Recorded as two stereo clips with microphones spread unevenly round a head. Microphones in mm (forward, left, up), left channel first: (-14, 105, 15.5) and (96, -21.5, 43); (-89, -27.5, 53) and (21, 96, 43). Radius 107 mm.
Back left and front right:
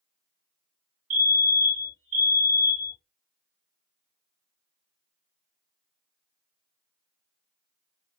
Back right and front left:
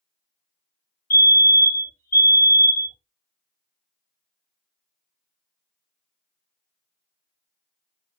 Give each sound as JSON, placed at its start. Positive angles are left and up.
{"t": 1.1, "sound": "a fire alarm", "azimuth_deg": -100, "distance_m": 2.5}